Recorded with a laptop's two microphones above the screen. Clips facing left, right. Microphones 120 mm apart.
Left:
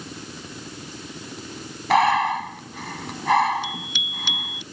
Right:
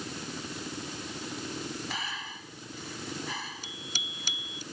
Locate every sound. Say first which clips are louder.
1.9 s breathing: left 22 dB; 85° left
3.6 s a bicycle bell: left 10 dB; 40° right (ahead or behind)